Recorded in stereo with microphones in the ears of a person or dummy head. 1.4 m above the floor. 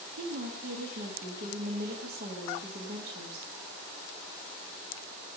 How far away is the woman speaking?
About 0.6 m.